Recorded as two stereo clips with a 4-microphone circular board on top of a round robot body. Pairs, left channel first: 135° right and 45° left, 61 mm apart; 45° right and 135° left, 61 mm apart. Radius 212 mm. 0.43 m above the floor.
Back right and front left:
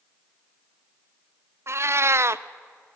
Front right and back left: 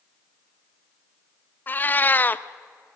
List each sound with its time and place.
1.7 s a cat meowing: 10° left, 0.7 m